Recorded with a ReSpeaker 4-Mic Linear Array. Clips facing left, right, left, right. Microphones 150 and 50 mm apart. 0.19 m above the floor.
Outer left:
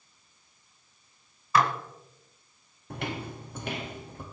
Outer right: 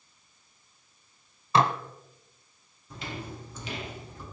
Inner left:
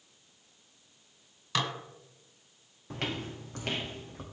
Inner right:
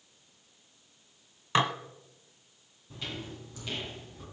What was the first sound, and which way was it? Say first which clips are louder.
Dishes clattering: outer right 1 dB, inner right 5 dB; 25° right (ahead or behind).